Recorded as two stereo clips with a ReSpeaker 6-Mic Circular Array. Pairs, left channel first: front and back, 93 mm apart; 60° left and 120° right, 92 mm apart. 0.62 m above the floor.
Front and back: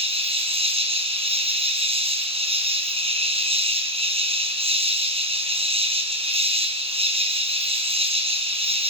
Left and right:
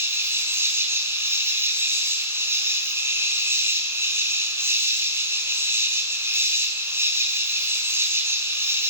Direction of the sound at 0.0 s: 175° left.